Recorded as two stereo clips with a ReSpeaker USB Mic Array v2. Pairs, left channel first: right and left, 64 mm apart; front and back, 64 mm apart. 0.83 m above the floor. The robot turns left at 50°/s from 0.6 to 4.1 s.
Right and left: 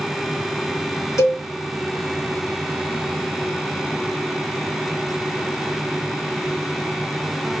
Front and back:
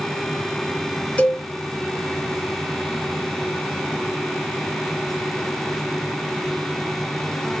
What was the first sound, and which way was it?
A cowbell, 65° right.